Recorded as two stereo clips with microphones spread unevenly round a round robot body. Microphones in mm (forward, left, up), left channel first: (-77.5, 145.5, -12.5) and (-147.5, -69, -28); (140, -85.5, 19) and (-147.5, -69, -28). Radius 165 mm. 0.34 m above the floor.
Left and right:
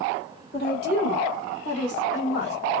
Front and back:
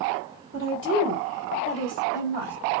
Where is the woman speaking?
35° left, 1.4 m; by 2.5 s 85° left, 1.8 m.